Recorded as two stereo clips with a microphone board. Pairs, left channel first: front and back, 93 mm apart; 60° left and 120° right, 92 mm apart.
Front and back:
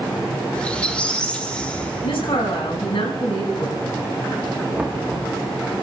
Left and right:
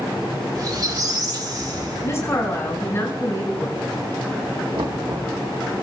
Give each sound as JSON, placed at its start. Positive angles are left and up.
{"t": 0.6, "sound": "a squeak", "azimuth_deg": -75, "distance_m": 1.5}
{"t": 2.0, "sound": "a woman speaking", "azimuth_deg": 0, "distance_m": 5.5}
{"t": 4.8, "sound": "knocking", "azimuth_deg": -100, "distance_m": 1.3}